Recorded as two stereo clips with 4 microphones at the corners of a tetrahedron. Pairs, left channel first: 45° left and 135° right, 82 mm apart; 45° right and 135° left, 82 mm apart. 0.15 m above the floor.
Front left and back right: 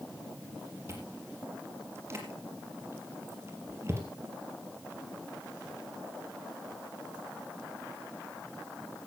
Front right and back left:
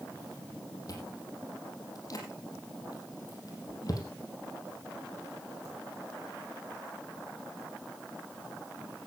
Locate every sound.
0.9 s chewing: 80° right, 4.5 m